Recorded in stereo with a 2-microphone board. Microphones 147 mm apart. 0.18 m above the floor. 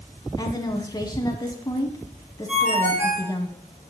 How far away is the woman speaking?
About 1.1 m.